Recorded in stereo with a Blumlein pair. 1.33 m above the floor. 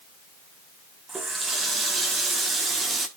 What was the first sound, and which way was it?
A running tap, 15° right.